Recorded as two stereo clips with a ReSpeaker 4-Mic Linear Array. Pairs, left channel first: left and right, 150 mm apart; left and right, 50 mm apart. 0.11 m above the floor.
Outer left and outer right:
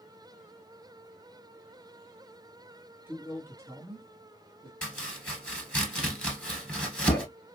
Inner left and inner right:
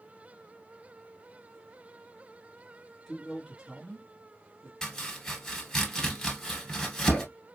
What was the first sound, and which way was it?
A man speaking, 10° right (ahead or behind).